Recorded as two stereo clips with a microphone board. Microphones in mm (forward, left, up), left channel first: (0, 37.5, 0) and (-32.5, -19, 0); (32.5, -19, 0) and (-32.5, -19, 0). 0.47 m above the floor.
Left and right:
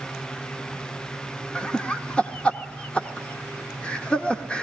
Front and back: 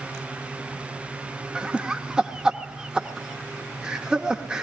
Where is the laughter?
120° left, 0.8 m.